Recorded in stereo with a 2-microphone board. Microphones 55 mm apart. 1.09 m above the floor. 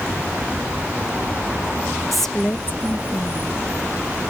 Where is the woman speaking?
Centre (ahead or behind); by 3.6 s 55° left (ahead or behind).